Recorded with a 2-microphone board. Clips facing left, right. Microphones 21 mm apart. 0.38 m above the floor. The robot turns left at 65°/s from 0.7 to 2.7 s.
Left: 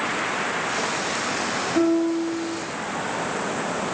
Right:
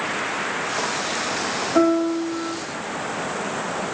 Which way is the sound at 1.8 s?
80° right.